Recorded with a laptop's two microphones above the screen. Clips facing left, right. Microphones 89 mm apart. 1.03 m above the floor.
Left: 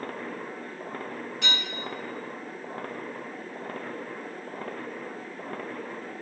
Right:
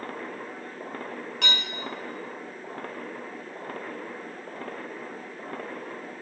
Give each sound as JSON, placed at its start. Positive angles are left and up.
{"t": 1.4, "sound": "dishes clattering", "side_deg": -75, "distance_m": 5.0}